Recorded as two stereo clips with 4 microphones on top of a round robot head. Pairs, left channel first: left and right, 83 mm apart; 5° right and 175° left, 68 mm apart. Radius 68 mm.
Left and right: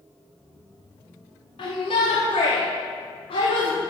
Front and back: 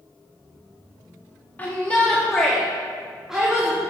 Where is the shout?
60° left, 1.9 m; by 3.8 s 100° left, 2.5 m.